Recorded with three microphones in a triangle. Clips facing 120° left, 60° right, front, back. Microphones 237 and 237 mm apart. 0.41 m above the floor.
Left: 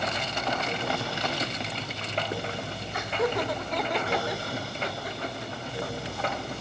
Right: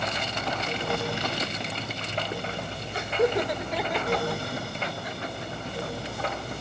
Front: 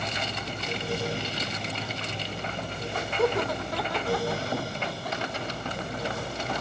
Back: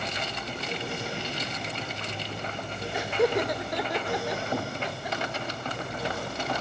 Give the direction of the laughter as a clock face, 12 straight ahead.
4 o'clock.